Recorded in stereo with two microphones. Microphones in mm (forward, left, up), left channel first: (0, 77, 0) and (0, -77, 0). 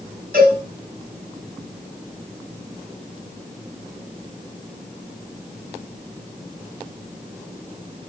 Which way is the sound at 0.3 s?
75° right (ahead or behind).